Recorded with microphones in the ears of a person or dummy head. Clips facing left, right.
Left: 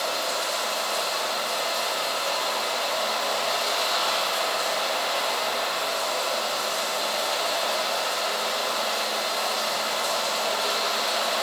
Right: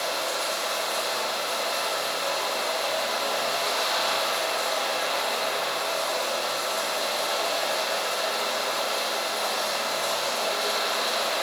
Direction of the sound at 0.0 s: 15° right (ahead or behind).